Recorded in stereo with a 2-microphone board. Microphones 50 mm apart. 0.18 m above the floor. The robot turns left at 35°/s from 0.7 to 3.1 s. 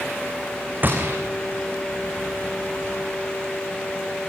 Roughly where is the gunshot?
Right.